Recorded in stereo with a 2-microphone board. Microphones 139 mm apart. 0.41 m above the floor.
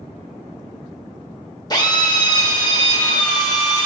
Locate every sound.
1.7 s a drill: 30° left (ahead or behind), 1.6 m